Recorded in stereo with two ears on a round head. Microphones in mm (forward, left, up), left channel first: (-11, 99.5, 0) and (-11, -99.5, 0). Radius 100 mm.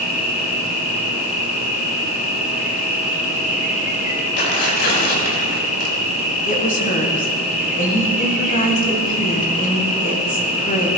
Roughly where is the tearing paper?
Left.